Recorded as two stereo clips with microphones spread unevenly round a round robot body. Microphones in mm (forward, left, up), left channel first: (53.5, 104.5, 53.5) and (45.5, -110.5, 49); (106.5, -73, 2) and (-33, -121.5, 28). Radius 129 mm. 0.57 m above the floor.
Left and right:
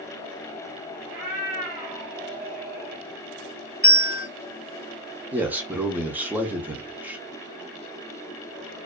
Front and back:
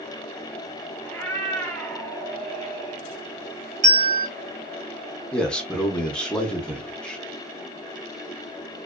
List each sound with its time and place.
1.1 s a cat meowing: 65° right, 1.4 m
3.8 s a bell: 170° left, 1.6 m
5.3 s a man speaking: 25° right, 0.7 m